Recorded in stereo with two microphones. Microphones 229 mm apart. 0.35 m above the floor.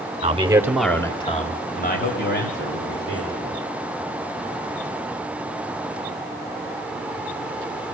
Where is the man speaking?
30° right (ahead or behind), 1.7 m; by 3.6 s 60° left (ahead or behind), 4.5 m.